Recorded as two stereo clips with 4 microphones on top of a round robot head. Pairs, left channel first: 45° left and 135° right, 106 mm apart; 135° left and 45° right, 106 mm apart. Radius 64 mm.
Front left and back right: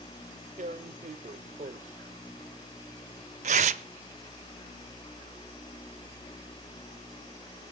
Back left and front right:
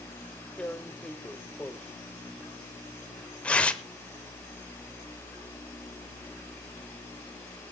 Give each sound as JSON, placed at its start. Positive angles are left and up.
{"t": 0.6, "sound": "tearing paper", "azimuth_deg": -150, "distance_m": 0.6}